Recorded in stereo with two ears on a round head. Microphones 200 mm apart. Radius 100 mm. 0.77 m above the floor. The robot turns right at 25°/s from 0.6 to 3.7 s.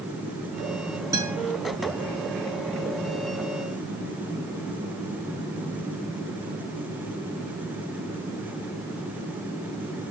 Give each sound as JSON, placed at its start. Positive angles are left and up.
{"t": 1.1, "sound": "a guitar", "side_deg": -15, "distance_m": 5.0}